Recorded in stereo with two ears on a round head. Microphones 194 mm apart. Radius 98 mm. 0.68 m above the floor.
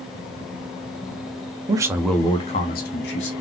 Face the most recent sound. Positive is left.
turn(degrees=60)  # may be behind; listen again after turning